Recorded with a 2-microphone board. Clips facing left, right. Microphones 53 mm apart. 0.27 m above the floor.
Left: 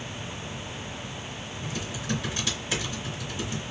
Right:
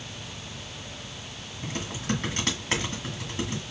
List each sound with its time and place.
1.6 s typing on a keyboard: 55° right (ahead or behind), 2.0 m